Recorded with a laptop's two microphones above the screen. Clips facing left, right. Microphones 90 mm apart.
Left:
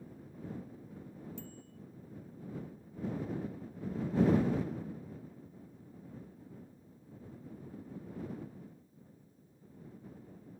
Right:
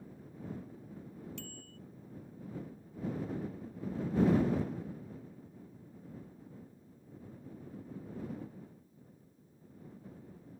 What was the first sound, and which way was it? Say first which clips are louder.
A bicycle bell: even; 70° right (ahead or behind).